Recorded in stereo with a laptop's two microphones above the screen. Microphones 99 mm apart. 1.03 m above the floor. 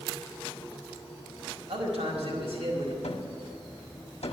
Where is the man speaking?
80° right, 4.5 m.